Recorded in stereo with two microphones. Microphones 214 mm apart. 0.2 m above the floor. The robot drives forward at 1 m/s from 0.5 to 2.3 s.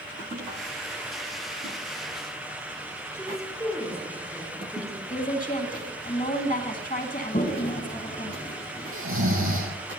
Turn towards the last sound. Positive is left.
turn(degrees=-80)